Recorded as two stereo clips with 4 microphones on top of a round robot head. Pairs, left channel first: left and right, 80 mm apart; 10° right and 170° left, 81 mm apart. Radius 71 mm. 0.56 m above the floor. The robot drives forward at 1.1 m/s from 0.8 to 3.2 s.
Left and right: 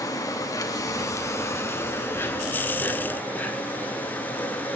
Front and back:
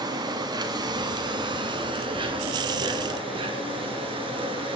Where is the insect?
135° left, 3 m; by 4.8 s 155° left, 5 m.